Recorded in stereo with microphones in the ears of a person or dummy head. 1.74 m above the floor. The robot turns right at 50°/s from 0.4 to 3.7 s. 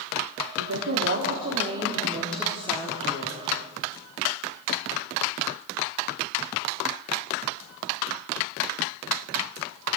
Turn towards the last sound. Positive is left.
turn(degrees=75)